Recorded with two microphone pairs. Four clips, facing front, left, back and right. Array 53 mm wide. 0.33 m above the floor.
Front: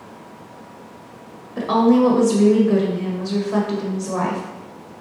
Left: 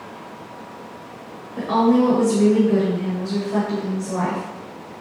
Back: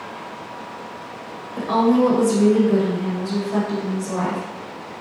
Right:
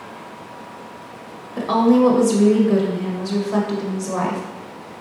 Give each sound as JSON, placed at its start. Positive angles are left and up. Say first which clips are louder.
{"t": 1.6, "sound": "a woman speaking", "louder": "right 2 dB, front 2 dB", "azimuth_deg": -60, "distance_m": 1.2}